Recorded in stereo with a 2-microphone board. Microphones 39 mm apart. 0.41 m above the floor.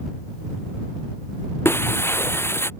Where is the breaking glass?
80° left.